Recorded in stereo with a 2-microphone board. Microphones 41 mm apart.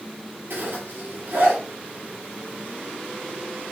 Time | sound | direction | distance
0.5 | a zipper | 65° right (ahead or behind) | 4.5 m